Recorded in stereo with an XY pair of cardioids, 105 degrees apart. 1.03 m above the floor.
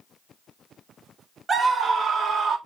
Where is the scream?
35° right, 0.9 m; by 2.6 s 70° right, 1.5 m.